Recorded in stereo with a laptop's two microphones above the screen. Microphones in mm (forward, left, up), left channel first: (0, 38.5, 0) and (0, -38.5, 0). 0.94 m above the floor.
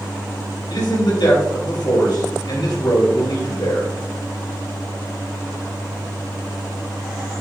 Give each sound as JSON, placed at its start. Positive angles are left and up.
{"t": 0.7, "sound": "a man speaking", "side_deg": 75, "distance_m": 4.0}